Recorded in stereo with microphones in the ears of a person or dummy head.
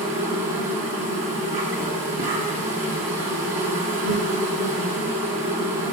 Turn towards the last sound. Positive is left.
turn(degrees=-40)  # may be behind; listen again after turning